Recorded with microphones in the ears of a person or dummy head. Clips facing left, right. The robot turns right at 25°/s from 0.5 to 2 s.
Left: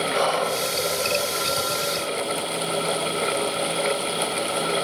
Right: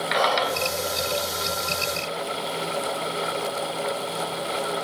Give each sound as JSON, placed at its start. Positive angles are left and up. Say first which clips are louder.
{"t": 0.1, "sound": "whispering", "louder": "right 1 dB", "side_deg": -10, "distance_m": 1.9}